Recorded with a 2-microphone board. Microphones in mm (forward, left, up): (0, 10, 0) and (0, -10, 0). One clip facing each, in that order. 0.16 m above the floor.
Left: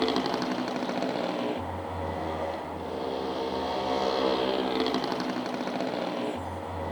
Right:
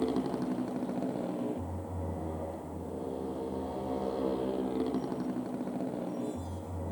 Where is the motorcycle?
60° left (ahead or behind); by 6.9 s 70° left (ahead or behind).